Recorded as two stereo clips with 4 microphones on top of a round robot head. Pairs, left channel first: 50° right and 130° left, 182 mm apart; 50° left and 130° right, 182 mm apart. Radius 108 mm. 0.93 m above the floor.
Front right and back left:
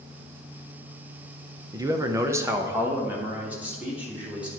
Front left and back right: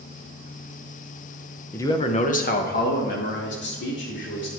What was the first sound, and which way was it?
A man speaking, 105° left.